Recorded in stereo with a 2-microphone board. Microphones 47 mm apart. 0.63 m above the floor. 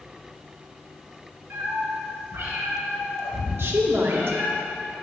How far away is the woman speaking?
About 0.9 m.